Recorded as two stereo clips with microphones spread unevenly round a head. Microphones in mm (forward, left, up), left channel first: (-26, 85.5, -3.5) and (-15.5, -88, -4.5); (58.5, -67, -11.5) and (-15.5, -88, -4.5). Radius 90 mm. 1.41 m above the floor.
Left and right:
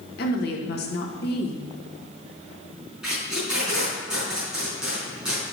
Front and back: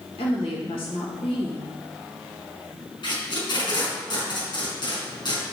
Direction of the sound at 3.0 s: Straight ahead.